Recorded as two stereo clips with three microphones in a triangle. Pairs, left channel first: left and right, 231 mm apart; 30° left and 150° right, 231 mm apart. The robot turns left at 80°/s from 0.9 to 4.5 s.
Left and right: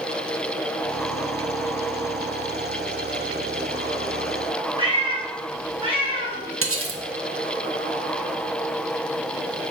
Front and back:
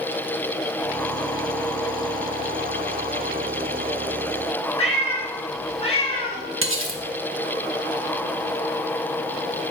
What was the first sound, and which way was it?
A cat meowing, 30° right.